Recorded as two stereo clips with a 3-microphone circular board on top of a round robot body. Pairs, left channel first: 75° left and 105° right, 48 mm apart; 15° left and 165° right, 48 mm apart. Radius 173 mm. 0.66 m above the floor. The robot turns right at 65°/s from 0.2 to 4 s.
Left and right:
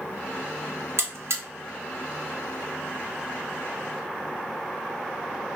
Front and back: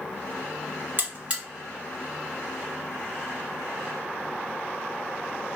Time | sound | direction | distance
1.0 | a buzzer | 125° right | 1.5 m